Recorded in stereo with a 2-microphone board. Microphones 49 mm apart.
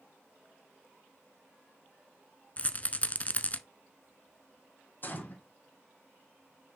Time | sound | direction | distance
2.6 | a rattle | 30° left (ahead or behind) | 0.7 m
5.0 | a gunshot | 40° left (ahead or behind) | 2 m